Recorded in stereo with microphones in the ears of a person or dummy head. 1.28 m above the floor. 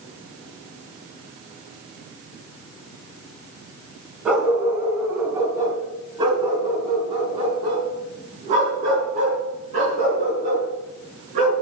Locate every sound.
4.2 s a dog barking: 5° right (ahead or behind), 2 m; by 11.5 s 45° right (ahead or behind), 5.5 m